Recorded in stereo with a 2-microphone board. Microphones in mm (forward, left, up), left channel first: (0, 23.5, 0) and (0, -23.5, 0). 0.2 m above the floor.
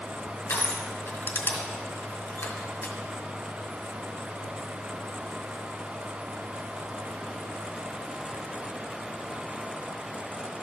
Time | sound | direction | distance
0.5 | crushing | 60° left (ahead or behind) | 1.8 m